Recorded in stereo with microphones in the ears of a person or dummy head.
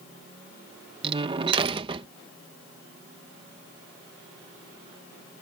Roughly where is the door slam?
Right.